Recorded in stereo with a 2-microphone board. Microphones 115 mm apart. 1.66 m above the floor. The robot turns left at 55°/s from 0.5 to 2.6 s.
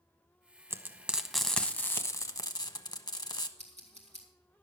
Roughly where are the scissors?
Right.